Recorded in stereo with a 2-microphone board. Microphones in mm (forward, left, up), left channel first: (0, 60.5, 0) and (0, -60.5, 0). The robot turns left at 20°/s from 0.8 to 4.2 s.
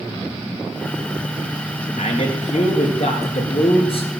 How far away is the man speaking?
About 3 m.